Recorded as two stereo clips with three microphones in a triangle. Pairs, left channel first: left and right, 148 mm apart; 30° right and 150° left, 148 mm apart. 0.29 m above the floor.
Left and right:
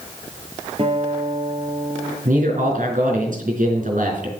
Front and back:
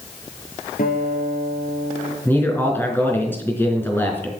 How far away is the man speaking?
About 4 m.